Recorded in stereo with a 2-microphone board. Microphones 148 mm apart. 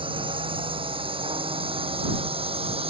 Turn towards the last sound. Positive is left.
turn(degrees=-40)  # may be behind; listen again after turning